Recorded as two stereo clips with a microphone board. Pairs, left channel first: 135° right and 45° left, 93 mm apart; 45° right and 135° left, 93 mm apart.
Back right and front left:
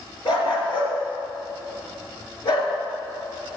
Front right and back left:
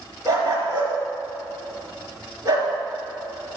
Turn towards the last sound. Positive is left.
turn(degrees=-170)